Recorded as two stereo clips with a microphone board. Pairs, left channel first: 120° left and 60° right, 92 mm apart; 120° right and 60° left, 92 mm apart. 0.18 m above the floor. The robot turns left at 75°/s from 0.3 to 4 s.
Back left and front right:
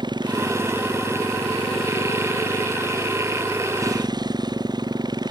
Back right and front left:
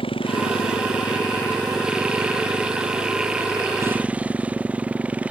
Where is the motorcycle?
100° right; by 5.3 s 15° right.